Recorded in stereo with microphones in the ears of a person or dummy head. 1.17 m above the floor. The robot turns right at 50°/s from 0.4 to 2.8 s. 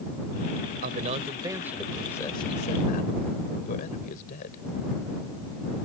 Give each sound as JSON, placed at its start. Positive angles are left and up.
{"t": 0.8, "sound": "a man speaking", "azimuth_deg": -50}